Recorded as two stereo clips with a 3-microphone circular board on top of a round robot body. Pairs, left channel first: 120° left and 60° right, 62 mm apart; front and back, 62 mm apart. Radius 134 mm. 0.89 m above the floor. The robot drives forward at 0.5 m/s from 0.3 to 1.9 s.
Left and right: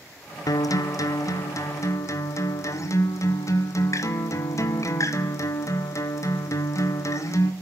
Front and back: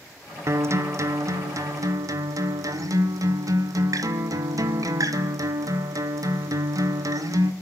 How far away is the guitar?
About 0.9 m.